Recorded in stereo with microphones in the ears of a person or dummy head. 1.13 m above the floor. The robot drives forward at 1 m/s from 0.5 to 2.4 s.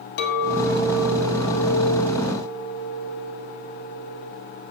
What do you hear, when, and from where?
0.2 s a clink: 60° left (ahead or behind), 1.0 m; by 4.3 s 30° left (ahead or behind), 1.6 m